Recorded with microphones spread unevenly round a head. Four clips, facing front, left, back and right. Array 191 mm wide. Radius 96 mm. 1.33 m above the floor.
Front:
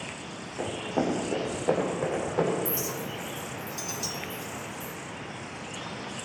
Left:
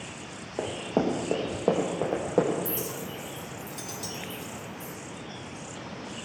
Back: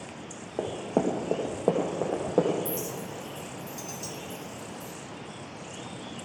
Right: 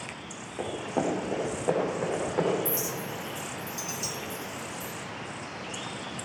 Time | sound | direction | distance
0.6 | running footsteps | 150° left | 3 m
2.6 | a clink | 5° left | 1.2 m